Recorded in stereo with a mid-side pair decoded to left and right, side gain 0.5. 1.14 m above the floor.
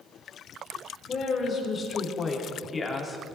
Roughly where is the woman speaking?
Ahead left.